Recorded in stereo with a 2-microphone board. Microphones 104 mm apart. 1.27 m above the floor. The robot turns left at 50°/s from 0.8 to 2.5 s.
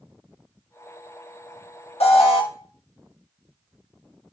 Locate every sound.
2.0 s an alarm: 75° left (ahead or behind), 0.7 m; by 2.4 s 60° left (ahead or behind), 0.7 m